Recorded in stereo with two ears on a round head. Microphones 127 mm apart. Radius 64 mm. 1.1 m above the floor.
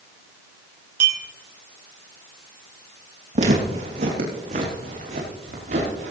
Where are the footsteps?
55° right (ahead or behind), 3 m; by 6.1 s 65° right (ahead or behind), 6 m.